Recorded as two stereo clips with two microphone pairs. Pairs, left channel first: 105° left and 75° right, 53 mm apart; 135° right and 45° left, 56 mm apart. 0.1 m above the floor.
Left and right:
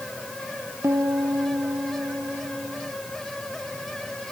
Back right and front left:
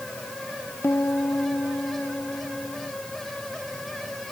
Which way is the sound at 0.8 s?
95° right.